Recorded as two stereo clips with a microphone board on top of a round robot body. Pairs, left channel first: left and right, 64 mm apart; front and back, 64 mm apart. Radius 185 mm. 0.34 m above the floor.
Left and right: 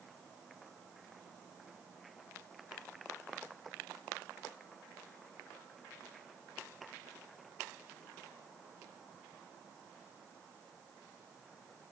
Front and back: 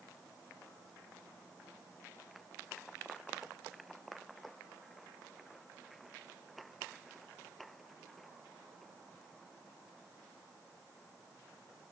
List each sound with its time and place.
Only background noise.